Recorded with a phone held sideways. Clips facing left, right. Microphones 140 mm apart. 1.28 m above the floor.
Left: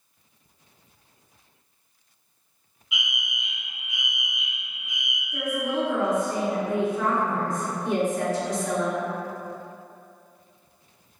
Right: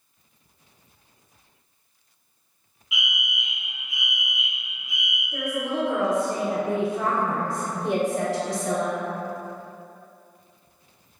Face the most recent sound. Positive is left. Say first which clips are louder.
# even
turn(degrees=-75)  # may be behind; listen again after turning